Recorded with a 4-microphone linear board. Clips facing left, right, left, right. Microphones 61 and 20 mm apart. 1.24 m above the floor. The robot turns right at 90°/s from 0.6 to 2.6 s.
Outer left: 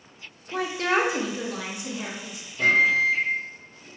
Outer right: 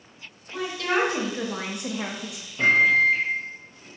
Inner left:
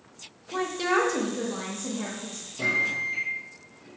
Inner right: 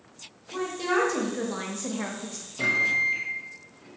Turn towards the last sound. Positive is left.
turn(degrees=-40)  # may be behind; listen again after turning